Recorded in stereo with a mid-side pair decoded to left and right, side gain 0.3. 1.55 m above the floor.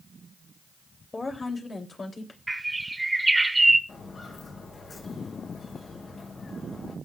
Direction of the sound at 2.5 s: 20° right.